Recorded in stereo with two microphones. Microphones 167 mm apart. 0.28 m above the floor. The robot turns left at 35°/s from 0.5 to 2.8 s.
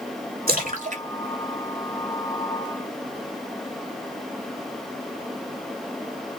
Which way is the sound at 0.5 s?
60° right (ahead or behind).